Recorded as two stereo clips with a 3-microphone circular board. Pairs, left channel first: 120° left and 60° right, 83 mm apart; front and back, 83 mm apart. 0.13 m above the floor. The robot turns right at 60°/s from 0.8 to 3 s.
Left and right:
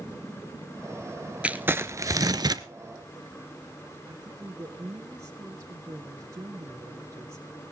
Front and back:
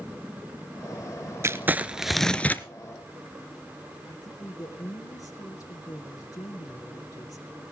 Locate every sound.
1.4 s crumpling: 130° right, 0.7 m; by 2.6 s 60° right, 0.7 m
4.0 s a woman speaking: 20° right, 2.5 m